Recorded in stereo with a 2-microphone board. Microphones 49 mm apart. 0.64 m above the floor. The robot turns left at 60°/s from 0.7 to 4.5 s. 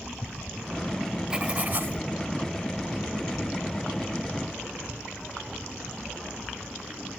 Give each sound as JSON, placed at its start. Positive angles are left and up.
{"t": 1.3, "sound": "writing", "azimuth_deg": -15}